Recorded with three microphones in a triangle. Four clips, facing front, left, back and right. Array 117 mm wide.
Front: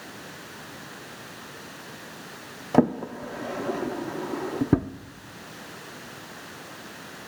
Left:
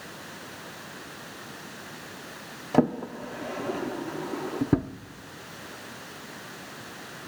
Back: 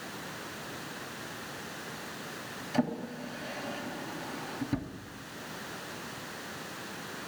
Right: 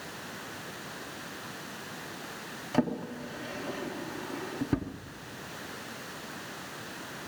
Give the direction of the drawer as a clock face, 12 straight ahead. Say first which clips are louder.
Left 6 dB, front 10 dB; 11 o'clock.